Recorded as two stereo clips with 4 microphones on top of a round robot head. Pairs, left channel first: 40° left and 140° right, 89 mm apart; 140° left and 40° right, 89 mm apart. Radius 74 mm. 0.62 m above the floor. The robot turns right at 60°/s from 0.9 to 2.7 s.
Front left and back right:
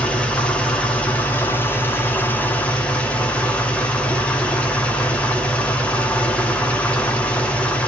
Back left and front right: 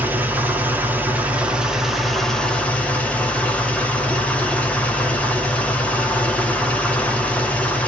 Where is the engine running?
20° right, 0.8 m; by 7.9 s 90° left, 0.8 m.